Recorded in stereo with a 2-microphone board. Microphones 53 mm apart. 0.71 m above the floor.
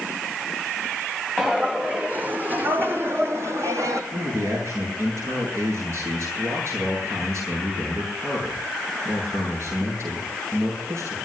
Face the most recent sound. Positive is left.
turn(degrees=-60)  # may be behind; listen again after turning